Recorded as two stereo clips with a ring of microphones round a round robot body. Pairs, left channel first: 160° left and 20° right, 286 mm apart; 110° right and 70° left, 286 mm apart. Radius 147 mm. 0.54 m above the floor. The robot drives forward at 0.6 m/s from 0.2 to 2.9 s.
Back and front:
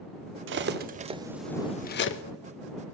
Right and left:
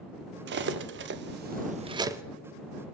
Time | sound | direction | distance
0.5 | cutlery clinking | 20° left | 0.8 m